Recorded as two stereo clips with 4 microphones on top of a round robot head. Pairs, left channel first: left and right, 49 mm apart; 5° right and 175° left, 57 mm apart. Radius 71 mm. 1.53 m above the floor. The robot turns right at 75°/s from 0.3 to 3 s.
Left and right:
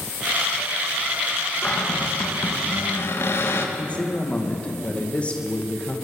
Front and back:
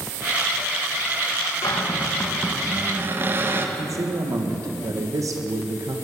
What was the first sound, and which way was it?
A cupboard door, 20° left.